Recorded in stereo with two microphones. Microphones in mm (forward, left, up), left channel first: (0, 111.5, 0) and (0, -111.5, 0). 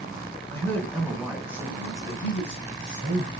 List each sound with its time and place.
0.5 s a man speaking: 10° left (ahead or behind), 1.8 m; by 3.3 s 40° right (ahead or behind), 2.0 m